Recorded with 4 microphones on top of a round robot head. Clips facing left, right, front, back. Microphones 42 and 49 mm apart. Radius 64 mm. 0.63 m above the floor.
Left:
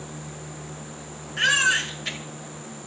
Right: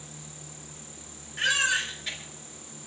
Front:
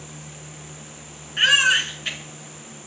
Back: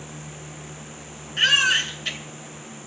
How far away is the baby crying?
About 6.5 m.